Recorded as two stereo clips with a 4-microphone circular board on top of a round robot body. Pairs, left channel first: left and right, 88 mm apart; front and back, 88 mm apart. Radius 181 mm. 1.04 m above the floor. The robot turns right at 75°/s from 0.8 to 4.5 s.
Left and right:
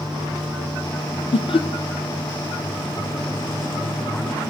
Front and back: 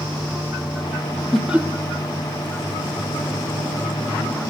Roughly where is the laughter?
Left.